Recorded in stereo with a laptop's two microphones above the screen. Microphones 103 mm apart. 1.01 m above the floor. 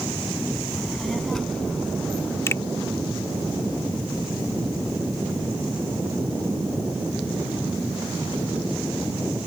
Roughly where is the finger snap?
Left.